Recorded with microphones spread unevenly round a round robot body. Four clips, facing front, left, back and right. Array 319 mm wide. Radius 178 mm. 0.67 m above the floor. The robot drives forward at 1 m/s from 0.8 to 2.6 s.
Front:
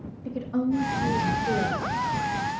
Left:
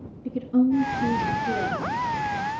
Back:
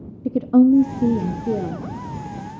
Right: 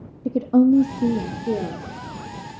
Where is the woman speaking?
130° right, 0.7 m; by 1.9 s 165° right, 1.5 m.